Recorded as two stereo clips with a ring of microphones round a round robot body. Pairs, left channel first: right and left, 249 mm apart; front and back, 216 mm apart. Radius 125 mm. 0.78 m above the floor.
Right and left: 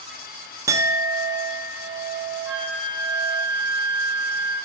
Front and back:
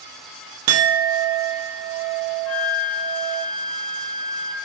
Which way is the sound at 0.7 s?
170° left.